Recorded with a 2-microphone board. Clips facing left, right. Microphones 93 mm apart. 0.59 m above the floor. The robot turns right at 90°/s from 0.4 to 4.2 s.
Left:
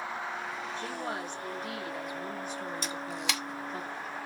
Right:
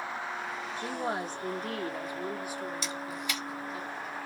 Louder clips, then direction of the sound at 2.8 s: Left 1 dB; 45° left (ahead or behind).